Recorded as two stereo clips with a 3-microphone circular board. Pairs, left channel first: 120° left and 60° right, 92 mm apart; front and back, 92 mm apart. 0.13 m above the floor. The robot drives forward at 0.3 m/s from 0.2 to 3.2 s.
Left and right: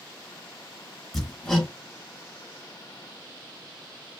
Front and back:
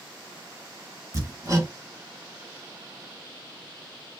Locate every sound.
1.1 s hammering: 155° right, 1.3 m; by 1.7 s 160° right, 1.4 m